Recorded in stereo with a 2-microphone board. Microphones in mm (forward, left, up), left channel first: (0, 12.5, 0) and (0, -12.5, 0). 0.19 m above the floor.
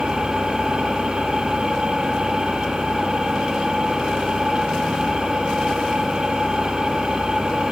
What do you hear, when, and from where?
0.0 s an engine running: 35° right (ahead or behind), 4.5 m